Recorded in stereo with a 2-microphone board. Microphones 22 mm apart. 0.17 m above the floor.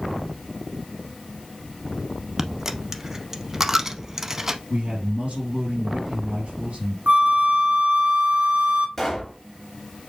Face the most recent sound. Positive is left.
turn(degrees=10)  # may be behind; listen again after turning